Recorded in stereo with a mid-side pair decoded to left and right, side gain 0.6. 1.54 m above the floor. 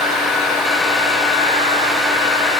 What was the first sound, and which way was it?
A fan, 50° left.